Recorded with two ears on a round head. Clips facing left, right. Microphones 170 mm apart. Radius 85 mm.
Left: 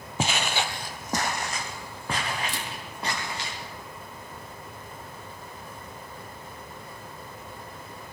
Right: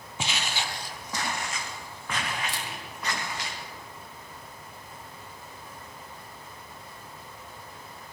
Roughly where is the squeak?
I don't hear a squeak.